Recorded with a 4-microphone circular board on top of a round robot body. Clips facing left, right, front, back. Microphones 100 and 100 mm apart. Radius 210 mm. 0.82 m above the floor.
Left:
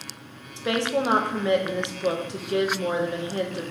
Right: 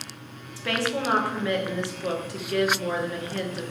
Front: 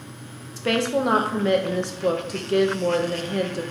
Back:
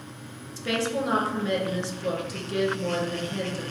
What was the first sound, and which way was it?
A woman speaking, 25° left.